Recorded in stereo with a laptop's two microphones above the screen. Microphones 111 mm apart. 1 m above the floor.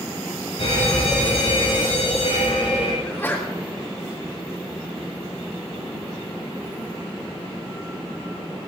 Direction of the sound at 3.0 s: 20° left (ahead or behind).